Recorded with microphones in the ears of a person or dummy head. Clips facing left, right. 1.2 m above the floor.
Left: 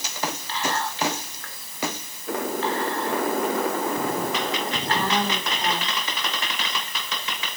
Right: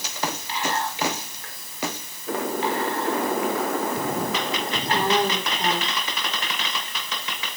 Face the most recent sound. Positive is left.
turn(degrees=-20)  # may be behind; listen again after turning